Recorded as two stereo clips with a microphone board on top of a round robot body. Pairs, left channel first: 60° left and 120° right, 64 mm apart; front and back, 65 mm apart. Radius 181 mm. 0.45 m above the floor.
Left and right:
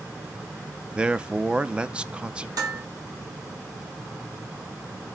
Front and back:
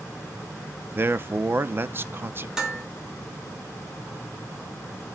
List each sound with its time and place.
0.9 s a man speaking: straight behind, 1.1 m
2.6 s dishes clattering: 100° right, 4.5 m